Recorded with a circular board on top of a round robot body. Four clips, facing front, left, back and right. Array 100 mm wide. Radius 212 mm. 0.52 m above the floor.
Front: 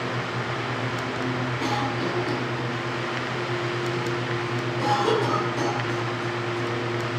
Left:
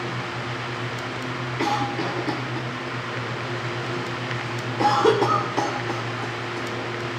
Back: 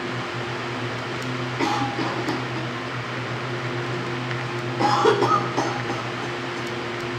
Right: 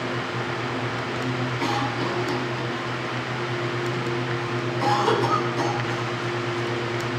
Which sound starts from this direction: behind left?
A cough, at 1.6 s.